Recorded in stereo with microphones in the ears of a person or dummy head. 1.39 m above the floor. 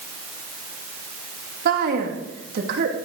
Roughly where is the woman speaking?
Right.